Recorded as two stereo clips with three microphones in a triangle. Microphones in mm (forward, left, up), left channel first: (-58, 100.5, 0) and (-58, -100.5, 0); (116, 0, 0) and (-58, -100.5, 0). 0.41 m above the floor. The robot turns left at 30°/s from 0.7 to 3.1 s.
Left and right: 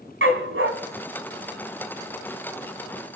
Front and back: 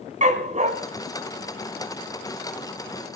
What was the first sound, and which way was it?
A dog barking, 95° right.